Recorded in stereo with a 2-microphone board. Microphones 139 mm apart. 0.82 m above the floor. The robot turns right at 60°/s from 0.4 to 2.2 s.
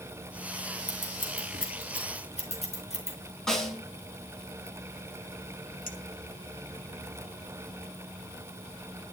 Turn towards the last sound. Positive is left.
turn(degrees=75)  # may be behind; listen again after turning